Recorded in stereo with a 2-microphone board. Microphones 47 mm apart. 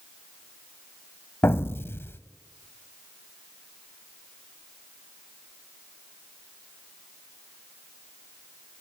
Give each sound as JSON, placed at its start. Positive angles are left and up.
{"t": 1.4, "sound": "an explosion", "side_deg": 60, "distance_m": 0.9}